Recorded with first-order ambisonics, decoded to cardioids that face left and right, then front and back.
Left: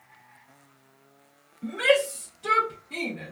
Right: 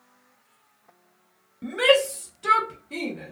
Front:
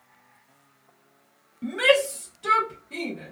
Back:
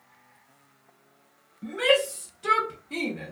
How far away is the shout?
About 1.1 m.